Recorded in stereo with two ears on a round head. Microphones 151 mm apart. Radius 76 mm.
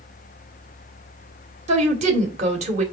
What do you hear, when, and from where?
1.7 s a woman speaking: 45° right (ahead or behind), 2 m